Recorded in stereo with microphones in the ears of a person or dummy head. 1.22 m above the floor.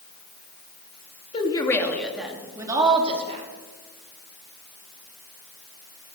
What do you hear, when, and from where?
1.3 s a woman speaking: 20° left (ahead or behind), 2.5 m; by 3.5 s 40° right (ahead or behind), 3.5 m